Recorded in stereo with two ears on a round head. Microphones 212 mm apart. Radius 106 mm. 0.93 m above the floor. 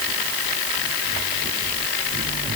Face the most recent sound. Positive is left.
No sound to turn to.